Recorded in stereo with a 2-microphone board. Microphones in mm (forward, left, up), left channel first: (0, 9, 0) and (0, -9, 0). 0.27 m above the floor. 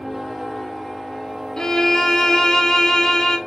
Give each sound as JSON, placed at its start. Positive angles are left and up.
{"t": 1.6, "sound": "a violin", "side_deg": 45, "distance_m": 1.3}